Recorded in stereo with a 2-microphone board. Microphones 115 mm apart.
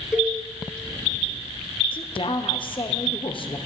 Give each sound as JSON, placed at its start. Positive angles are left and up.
{"t": 0.1, "sound": "a cowbell", "side_deg": -5, "distance_m": 1.4}
{"t": 1.9, "sound": "a woman speaking", "side_deg": 45, "distance_m": 0.9}